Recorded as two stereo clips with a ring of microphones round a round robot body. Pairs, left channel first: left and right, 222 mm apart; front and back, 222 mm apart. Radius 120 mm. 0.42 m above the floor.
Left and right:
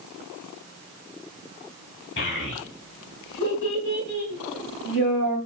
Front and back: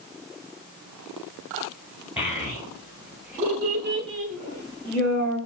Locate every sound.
2.2 s a child speaking: 100° left, 1.2 m; by 5.4 s 165° left, 2 m